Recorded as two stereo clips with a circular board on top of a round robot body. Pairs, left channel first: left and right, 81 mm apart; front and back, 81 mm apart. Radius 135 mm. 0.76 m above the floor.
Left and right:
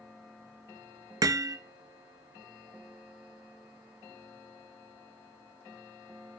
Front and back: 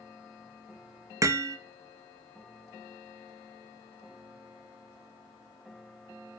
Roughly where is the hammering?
Behind right.